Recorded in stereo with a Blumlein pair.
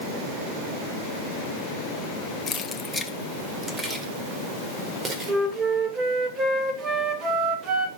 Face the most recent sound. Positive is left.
turn(degrees=-25)